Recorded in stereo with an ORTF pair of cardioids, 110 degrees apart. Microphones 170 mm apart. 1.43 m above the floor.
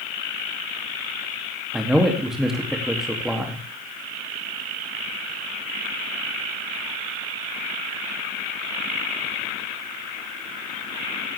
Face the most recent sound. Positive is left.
turn(degrees=0)